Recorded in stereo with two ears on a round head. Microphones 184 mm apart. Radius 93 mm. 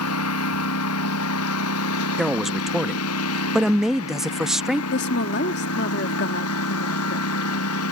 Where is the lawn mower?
90° left.